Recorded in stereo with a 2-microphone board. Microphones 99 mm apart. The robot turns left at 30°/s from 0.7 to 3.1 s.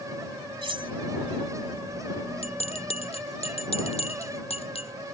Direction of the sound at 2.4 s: 80° left.